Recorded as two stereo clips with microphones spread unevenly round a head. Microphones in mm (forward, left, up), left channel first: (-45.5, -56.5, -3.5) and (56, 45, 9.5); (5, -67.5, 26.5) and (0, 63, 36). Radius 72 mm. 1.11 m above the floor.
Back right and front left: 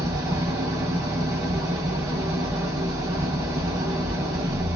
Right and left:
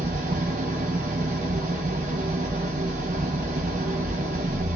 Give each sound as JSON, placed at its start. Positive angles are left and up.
{"t": 0.0, "sound": "an engine running", "azimuth_deg": 100, "distance_m": 0.9}